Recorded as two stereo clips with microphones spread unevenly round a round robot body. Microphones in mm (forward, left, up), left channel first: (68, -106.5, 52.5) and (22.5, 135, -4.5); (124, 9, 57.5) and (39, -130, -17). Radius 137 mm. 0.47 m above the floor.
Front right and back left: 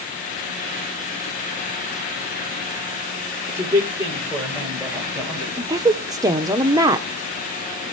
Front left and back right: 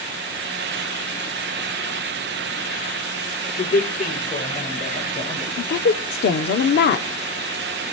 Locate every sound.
3.5 s a man speaking: 25° left, 8.5 m; by 5.5 s 20° left, 10.5 m
5.6 s a woman speaking: 60° left, 1.2 m